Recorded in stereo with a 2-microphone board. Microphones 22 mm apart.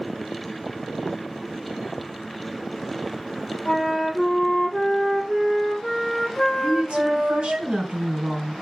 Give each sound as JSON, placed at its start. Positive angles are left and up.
{"t": 3.6, "sound": "a flute", "side_deg": 15, "distance_m": 4.0}
{"t": 6.6, "sound": "a woman speaking", "side_deg": -40, "distance_m": 3.5}